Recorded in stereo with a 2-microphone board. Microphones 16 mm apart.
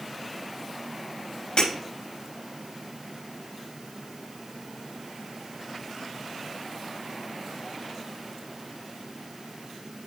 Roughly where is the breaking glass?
Left.